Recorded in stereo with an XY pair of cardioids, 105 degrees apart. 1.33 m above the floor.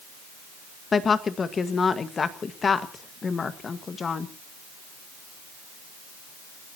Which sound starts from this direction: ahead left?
A woman speaking, at 0.9 s.